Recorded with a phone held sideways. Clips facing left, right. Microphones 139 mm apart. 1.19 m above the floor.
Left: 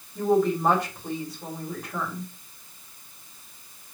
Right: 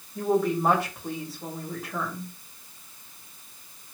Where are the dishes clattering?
I don't hear dishes clattering.